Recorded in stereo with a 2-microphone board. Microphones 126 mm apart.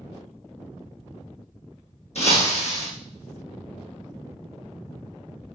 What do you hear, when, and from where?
2.1 s breaking glass: 60° left (ahead or behind), 4 m